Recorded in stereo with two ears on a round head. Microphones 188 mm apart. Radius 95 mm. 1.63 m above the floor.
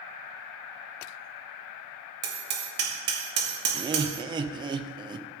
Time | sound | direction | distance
2.2 | hammering | 55° right (ahead or behind) | 2.5 m
3.7 | laughter | 20° right (ahead or behind) | 0.6 m